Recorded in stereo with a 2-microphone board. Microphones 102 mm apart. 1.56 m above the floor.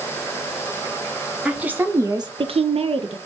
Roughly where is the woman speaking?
Centre.